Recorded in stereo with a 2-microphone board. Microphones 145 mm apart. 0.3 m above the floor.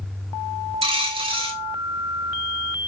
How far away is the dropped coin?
About 0.7 m.